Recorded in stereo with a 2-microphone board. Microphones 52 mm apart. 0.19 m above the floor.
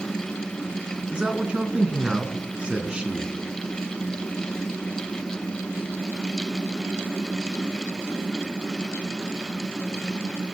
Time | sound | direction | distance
1.1 | a man speaking | 20° right (ahead or behind) | 2.5 m